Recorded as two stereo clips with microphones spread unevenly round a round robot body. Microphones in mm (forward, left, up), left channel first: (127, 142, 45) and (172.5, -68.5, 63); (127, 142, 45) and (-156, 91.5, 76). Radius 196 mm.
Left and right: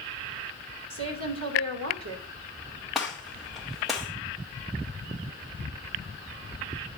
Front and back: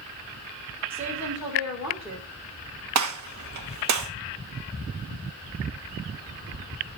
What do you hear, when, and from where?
0.9 s a woman speaking: 85° right, 3.5 m
3.0 s a gunshot: 170° right, 1.3 m